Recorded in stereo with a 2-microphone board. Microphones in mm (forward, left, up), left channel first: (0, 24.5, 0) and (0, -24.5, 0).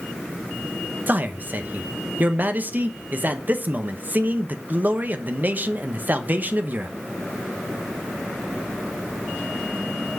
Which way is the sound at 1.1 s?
40° right (ahead or behind).